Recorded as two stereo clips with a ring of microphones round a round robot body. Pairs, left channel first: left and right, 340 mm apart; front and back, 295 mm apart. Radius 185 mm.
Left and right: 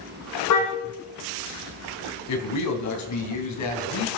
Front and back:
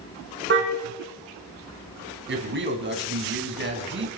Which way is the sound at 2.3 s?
130° left.